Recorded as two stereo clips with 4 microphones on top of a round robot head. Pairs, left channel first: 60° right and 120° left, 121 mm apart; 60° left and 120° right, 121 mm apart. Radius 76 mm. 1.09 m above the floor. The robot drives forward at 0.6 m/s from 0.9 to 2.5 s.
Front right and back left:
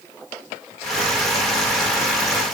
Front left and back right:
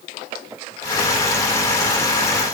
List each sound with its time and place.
Only background noise.